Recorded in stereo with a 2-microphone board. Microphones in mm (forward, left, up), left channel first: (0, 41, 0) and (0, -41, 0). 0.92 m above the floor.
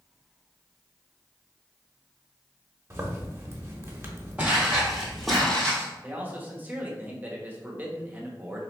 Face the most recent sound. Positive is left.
turn(degrees=-20)  # may be behind; listen again after turning